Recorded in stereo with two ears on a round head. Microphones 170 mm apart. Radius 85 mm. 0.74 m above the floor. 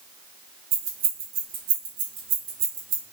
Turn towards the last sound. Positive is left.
turn(degrees=-85)